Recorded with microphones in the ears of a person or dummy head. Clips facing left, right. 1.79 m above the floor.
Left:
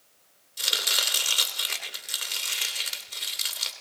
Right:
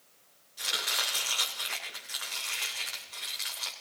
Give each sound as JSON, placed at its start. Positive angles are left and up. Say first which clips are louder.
{"t": 0.6, "sound": "chopping", "louder": "left 3 dB", "side_deg": 45, "distance_m": 2.5}